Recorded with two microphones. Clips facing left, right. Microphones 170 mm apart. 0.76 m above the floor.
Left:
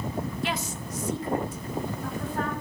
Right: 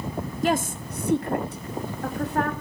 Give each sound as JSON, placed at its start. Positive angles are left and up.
{"t": 0.4, "sound": "a woman speaking", "side_deg": -45, "distance_m": 0.6}